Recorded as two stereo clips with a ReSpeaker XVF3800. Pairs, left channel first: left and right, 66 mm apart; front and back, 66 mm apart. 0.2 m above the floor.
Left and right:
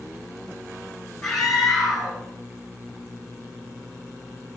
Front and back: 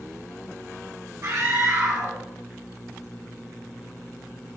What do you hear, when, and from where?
1.2 s a scream: straight behind, 2.5 m